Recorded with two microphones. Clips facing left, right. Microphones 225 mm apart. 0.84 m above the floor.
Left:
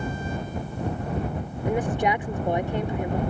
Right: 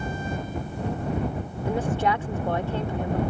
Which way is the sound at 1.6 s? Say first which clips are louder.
Left 1 dB; 20° left (ahead or behind).